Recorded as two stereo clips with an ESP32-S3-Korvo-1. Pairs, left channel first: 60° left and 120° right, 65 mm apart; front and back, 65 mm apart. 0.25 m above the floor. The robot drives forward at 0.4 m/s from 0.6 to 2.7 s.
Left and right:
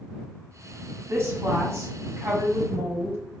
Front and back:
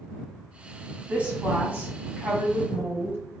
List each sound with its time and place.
1.1 s a woman speaking: 115° right, 1.8 m; by 3.2 s 135° right, 2 m